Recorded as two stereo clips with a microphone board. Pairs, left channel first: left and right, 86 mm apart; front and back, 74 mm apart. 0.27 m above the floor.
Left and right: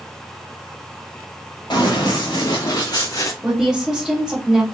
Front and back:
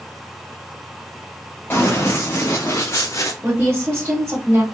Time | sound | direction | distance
1.7 | running footsteps | 60° left | 2 m
3.4 | a woman speaking | 170° right | 1.4 m